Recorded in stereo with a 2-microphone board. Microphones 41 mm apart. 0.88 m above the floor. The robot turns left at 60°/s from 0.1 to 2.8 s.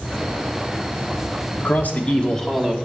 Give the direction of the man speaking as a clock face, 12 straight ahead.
10 o'clock.